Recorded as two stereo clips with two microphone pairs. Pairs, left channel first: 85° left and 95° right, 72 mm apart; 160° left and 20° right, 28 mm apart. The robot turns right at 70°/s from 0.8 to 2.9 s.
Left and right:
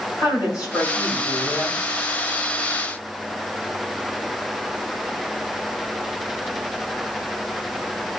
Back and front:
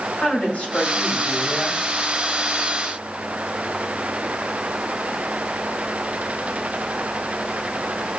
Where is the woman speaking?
115° left, 4 m; by 1.8 s 175° right, 4 m.